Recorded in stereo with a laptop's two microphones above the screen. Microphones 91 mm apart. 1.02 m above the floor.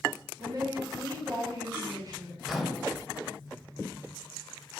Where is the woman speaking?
40° right (ahead or behind), 0.7 m.